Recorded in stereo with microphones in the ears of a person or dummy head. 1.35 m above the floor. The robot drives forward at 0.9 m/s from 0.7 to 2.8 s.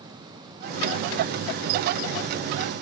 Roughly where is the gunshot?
No gunshot in this recording.